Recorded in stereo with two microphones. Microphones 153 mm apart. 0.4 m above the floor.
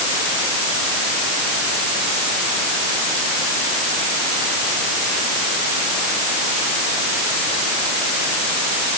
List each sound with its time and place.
Only background noise.